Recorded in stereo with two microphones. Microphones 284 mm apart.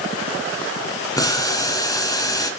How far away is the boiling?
About 2 m.